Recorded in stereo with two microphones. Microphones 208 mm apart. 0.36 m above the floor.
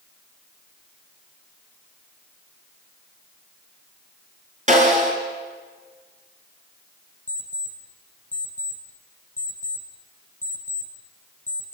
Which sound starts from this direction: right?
A snare drum, at 4.7 s.